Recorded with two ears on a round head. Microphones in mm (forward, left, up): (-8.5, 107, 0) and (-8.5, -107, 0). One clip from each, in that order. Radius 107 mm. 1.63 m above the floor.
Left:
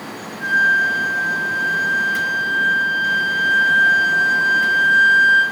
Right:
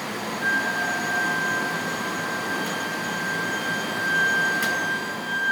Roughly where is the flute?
Centre.